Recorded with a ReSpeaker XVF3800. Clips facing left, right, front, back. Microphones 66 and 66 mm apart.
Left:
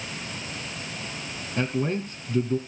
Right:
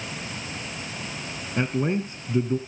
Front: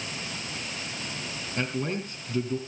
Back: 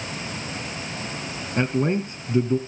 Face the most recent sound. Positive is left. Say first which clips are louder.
# right 2 dB, back 8 dB
turn(degrees=-145)